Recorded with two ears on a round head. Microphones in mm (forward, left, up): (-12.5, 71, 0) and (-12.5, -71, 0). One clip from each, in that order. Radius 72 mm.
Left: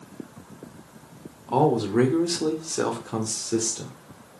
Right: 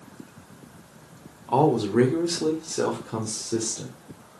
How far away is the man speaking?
About 1.5 m.